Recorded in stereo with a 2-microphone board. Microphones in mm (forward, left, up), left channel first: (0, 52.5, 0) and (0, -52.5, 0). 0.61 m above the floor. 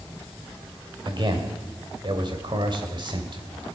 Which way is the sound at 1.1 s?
50° right (ahead or behind).